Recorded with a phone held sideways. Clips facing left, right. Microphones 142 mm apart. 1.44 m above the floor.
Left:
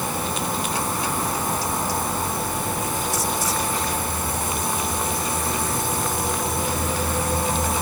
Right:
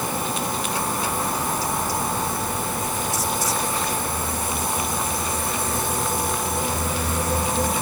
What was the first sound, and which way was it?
Only background noise.